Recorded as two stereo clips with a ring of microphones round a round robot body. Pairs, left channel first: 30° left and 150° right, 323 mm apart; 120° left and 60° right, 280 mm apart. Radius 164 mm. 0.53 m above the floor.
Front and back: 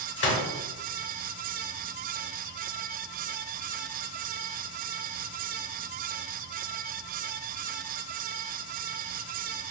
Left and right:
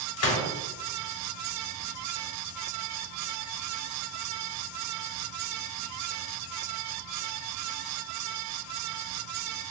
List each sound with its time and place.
0.2 s a gunshot: 85° left, 0.9 m